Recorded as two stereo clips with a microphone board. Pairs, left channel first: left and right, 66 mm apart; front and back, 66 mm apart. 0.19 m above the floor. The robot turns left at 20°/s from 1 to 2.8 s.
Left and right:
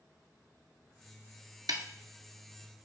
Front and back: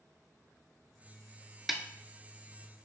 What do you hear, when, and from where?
1.7 s a snare drum: 95° right, 0.8 m